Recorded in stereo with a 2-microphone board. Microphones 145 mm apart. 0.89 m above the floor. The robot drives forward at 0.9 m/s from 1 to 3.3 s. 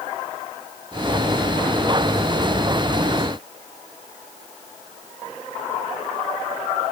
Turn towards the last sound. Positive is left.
No sound to turn to.